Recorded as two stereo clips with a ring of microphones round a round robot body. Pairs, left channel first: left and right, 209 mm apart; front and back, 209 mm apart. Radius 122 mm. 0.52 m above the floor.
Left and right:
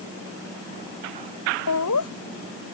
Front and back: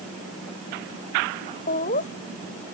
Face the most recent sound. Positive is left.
turn(degrees=60)